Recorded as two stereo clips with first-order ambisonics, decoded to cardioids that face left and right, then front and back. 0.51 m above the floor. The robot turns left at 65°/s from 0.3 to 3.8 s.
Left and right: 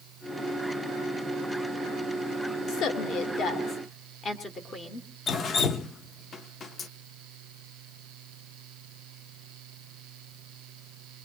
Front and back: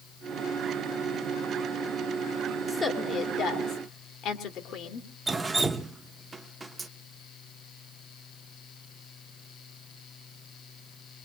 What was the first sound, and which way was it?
A woman speaking, 100° left.